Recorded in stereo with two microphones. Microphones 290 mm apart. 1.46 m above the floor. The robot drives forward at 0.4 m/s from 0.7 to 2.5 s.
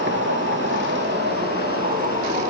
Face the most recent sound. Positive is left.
turn(degrees=-30)  # may be behind; listen again after turning